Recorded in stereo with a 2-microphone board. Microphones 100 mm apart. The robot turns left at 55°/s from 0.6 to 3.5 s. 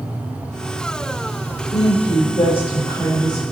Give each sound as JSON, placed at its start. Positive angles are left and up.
{"t": 1.7, "sound": "a woman speaking", "azimuth_deg": 105, "distance_m": 5.5}